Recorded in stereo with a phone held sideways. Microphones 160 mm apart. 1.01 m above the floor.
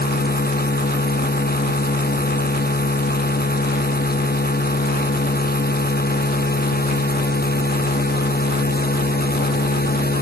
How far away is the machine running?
About 0.9 m.